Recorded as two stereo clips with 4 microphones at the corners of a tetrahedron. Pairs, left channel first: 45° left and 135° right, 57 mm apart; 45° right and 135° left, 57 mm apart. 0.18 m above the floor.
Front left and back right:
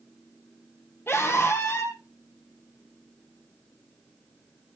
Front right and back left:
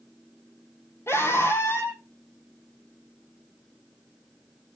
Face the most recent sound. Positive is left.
turn(degrees=0)